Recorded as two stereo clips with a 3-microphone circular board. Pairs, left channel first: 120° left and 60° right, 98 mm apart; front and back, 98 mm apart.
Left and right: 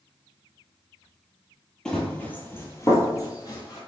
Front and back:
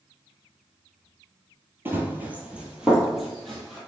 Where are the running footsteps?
170° right, 0.8 m; by 3.8 s 85° left, 1.1 m.